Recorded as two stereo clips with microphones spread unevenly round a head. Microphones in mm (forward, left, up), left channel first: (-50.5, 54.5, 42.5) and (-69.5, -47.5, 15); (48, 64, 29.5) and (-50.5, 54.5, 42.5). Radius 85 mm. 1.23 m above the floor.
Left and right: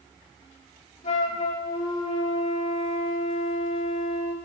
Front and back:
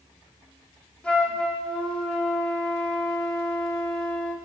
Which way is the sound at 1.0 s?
85° left.